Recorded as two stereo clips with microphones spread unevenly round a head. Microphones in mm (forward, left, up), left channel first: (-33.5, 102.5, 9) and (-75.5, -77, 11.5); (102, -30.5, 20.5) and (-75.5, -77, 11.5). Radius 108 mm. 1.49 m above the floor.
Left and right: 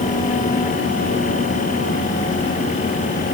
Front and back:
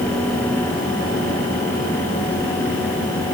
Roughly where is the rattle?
No rattle in this recording.